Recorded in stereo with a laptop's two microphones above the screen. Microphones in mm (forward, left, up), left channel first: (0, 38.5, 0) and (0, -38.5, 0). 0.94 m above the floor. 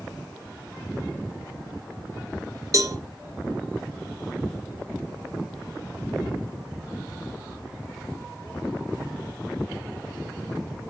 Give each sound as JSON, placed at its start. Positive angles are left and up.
{"t": 2.7, "sound": "a cowbell", "side_deg": -40, "distance_m": 0.9}